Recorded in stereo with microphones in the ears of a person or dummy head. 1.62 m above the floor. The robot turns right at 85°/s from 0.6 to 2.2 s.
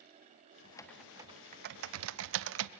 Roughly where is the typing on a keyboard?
Left.